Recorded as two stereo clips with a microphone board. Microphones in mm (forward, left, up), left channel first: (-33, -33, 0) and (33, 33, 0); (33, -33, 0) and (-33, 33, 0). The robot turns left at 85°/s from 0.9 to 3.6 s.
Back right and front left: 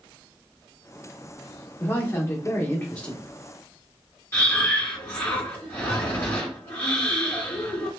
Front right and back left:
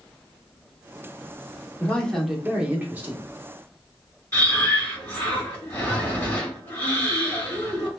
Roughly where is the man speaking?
Right.